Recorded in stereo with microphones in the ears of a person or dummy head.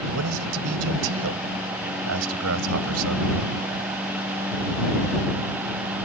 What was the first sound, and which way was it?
A man speaking, 85° right.